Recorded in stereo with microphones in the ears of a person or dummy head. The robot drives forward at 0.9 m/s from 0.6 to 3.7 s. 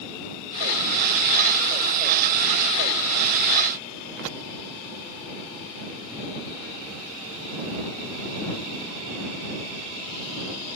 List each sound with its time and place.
Only background noise.